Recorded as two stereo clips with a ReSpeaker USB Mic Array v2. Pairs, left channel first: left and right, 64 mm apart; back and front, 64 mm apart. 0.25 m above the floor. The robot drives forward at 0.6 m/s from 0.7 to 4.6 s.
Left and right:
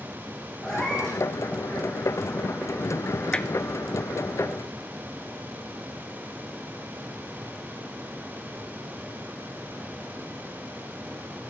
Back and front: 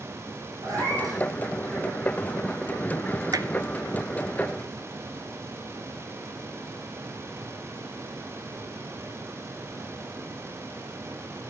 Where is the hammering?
15° left, 1.3 m.